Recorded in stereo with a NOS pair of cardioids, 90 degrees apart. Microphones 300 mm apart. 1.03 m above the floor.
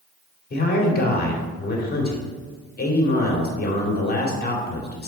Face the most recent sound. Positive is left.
turn(degrees=30)